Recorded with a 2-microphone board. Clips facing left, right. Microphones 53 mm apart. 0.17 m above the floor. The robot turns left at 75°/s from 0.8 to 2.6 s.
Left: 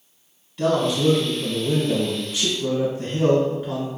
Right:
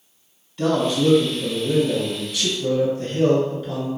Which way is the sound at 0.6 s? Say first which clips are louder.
Even; centre (ahead or behind).